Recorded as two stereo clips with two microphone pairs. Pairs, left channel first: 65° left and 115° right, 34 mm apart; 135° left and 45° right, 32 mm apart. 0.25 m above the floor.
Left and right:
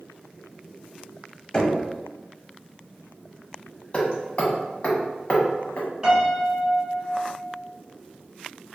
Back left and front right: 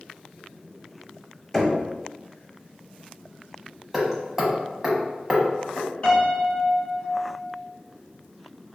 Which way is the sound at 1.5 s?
70° left.